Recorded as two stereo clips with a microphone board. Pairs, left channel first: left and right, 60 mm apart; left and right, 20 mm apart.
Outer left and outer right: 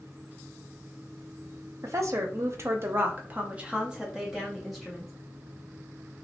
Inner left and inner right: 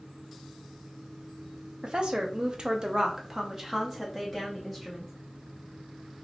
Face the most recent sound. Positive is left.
turn(degrees=0)  # may be behind; listen again after turning